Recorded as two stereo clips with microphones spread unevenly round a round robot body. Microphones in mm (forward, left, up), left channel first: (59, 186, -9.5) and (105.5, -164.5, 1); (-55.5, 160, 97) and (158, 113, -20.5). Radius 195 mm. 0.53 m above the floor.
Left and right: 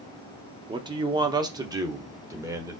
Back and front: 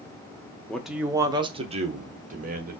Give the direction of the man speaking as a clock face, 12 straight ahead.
1 o'clock.